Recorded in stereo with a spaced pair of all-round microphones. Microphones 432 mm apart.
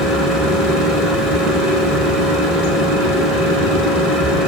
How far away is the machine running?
About 3 m.